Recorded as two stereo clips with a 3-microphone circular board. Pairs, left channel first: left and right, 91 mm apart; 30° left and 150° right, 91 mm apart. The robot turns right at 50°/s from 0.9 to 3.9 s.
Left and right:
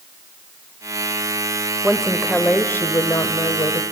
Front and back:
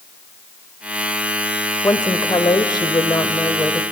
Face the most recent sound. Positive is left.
turn(degrees=90)